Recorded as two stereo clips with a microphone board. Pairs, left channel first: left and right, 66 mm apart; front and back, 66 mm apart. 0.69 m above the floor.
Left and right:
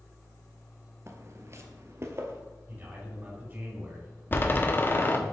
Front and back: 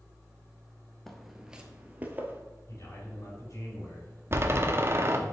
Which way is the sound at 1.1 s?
85° right.